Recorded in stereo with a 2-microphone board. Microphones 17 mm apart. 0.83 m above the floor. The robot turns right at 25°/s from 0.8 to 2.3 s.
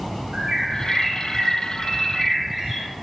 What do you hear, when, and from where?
0.3 s a bird: 45° right, 2 m; by 2.9 s 5° right, 2 m